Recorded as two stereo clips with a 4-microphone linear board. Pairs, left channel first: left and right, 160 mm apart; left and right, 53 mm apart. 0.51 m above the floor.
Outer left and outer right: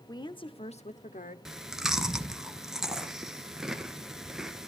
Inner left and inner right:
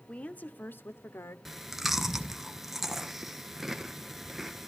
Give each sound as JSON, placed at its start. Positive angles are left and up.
{"t": 0.1, "sound": "a woman speaking", "side_deg": 25, "distance_m": 0.9}
{"t": 1.4, "sound": "chewing", "side_deg": -5, "distance_m": 1.1}